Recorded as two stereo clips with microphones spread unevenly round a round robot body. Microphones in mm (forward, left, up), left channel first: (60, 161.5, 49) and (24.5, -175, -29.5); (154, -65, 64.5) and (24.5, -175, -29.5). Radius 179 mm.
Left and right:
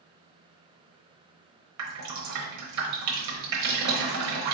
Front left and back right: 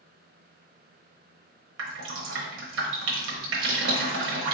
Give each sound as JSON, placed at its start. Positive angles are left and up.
{"t": 1.8, "sound": "dripping", "azimuth_deg": -140, "distance_m": 0.9}